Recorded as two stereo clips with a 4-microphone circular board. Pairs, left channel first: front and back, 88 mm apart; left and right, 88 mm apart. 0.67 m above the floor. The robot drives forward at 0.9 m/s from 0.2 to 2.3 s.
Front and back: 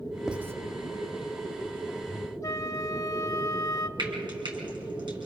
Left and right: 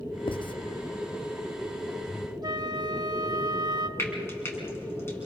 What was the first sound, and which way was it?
Writing, 95° left.